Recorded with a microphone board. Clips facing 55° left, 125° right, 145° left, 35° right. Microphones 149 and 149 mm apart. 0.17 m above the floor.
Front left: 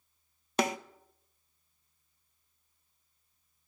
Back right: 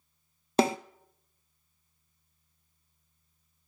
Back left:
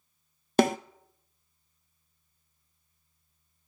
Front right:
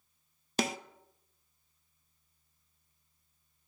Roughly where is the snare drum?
Behind.